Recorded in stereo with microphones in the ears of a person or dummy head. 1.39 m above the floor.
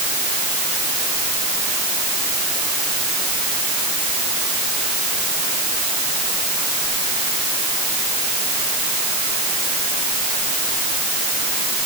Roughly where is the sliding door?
I don't hear a sliding door.